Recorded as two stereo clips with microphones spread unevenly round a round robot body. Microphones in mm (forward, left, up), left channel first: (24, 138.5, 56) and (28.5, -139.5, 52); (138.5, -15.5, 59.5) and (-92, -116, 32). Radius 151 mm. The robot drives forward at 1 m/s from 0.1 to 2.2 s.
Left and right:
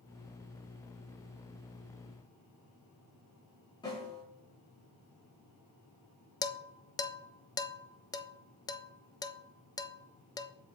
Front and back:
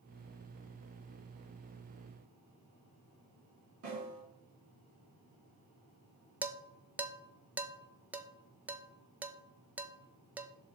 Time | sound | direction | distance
3.8 | a snare drum | 165° left | 3.5 m
6.4 | dishes clattering | 145° left | 0.5 m